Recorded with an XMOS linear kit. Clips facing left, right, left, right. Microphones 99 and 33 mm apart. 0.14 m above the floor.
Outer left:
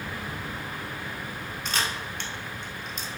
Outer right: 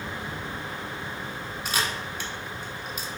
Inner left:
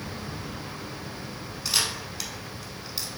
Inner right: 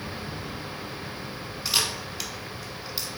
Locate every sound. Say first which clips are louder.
1.6 s a camera shutter: outer right 1 dB, inner right 1 dB; 10° right (ahead or behind), 0.7 m